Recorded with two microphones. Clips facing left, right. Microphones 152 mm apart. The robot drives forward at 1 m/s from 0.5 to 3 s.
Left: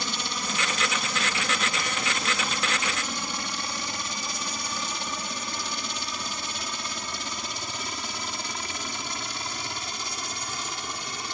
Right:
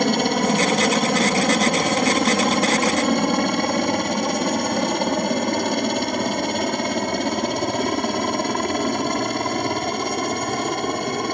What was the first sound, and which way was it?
A helicopter, 65° right (ahead or behind).